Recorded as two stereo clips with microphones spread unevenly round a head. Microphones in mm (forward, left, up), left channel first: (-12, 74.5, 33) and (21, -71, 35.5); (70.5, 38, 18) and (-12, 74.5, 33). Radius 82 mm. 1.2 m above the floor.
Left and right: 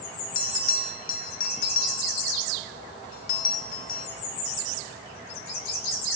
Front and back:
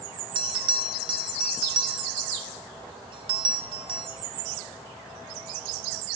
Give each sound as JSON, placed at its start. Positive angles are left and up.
{"t": 0.3, "sound": "a bell", "azimuth_deg": 140, "distance_m": 0.7}